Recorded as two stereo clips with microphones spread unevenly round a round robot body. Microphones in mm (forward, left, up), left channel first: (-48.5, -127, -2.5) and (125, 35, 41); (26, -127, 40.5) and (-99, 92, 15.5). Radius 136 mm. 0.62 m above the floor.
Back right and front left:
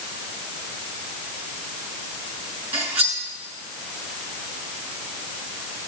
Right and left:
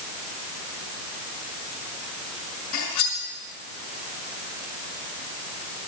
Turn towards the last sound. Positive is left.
turn(degrees=-40)